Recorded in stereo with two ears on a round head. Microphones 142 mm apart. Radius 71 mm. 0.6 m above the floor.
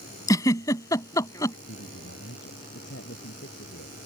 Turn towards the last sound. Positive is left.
turn(degrees=75)  # may be behind; listen again after turning